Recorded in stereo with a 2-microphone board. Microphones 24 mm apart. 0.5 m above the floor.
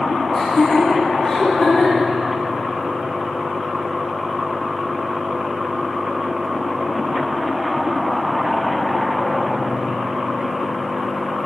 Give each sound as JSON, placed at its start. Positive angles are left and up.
{"t": 0.3, "sound": "laughter", "side_deg": 30, "distance_m": 1.0}